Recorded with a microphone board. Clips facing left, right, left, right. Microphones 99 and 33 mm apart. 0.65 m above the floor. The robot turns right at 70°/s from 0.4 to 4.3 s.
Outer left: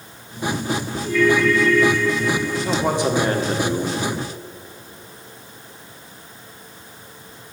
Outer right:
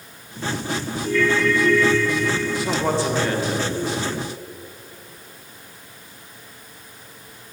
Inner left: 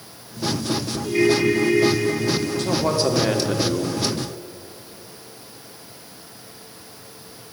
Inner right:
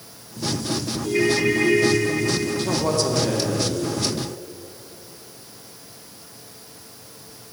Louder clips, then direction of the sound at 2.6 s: Outer left 2 dB, inner left 3 dB; 10° right.